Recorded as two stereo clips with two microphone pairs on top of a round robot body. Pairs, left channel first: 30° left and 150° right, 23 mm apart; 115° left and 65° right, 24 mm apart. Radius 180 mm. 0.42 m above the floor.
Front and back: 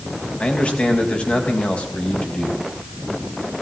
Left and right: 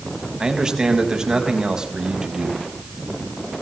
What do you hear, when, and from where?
0.4 s a man speaking: 5° right, 5.5 m